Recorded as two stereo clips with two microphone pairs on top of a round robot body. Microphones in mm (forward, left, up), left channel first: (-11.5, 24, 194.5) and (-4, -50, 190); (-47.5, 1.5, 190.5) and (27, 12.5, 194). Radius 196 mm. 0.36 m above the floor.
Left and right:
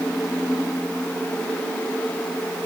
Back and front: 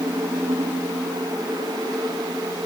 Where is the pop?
No pop in this recording.